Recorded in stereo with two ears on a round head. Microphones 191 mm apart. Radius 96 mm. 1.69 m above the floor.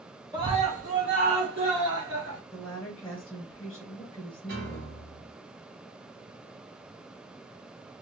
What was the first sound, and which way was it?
A scream, 20° right (ahead or behind).